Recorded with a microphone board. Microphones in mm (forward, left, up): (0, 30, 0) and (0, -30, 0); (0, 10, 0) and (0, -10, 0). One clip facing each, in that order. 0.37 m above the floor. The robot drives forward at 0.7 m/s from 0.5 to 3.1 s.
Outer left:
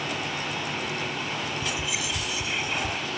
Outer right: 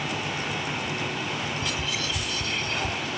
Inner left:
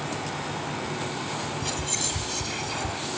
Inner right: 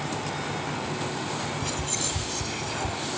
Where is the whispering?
15° left (ahead or behind); by 3.0 s 10° left (ahead or behind).